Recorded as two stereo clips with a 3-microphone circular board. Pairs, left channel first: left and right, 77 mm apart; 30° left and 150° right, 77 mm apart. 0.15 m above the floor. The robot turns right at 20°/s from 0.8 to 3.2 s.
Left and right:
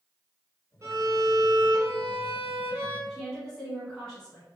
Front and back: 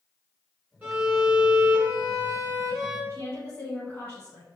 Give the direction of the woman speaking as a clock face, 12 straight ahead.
11 o'clock.